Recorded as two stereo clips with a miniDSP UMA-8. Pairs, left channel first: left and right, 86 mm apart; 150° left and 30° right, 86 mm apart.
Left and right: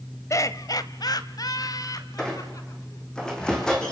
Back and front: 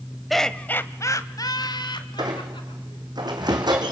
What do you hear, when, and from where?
0.3 s laughter: 60° left, 1.1 m; by 3.1 s 140° left, 3 m
2.2 s a squeak: 10° left, 4 m